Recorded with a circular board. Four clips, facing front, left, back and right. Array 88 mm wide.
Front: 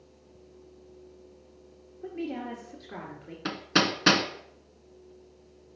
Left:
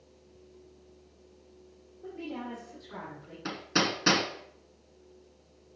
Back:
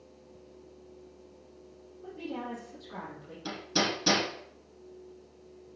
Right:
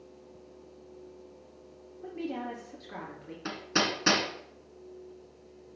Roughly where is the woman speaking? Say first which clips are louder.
Right 3 dB, front 4 dB; ahead right.